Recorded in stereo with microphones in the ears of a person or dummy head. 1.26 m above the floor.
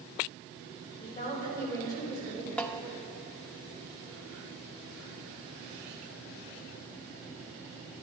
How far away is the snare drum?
About 0.5 m.